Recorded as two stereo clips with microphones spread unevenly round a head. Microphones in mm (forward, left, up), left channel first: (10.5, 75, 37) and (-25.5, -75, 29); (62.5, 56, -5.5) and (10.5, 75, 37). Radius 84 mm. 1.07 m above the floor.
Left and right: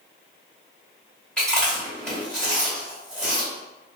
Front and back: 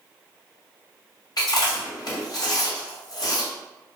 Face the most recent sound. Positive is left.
turn(degrees=-5)